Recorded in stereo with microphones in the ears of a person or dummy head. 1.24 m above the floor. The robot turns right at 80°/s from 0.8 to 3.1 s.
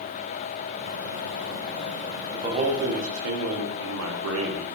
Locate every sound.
2.3 s a man speaking: 160° right, 0.6 m; by 4.7 s 100° right, 0.6 m